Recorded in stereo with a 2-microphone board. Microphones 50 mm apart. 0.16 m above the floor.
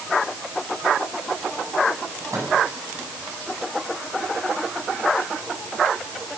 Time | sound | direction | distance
2.3 | a microwave | 80° right | 8 m